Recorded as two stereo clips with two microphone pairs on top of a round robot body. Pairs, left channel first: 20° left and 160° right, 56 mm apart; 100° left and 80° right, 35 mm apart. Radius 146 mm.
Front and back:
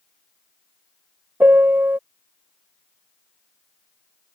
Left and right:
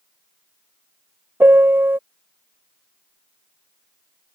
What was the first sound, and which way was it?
A piano, 100° right.